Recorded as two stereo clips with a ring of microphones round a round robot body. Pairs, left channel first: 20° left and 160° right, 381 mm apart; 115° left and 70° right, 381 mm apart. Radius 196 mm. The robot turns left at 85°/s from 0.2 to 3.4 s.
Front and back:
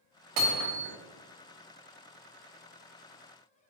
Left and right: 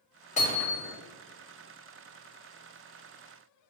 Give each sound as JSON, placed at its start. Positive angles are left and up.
{"t": 0.4, "sound": "hammering", "azimuth_deg": -175, "distance_m": 1.5}